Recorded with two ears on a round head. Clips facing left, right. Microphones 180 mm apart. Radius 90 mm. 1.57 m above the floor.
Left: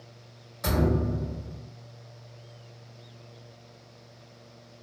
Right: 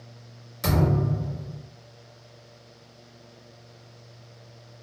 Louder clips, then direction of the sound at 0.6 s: Right 1 dB; 35° right (ahead or behind).